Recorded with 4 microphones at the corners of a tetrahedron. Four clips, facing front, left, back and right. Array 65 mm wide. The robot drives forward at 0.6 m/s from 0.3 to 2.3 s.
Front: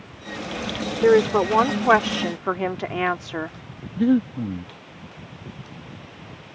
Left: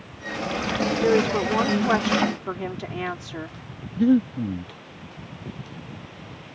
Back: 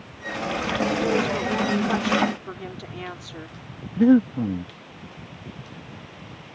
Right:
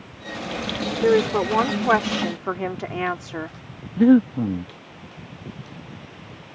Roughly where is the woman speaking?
Ahead.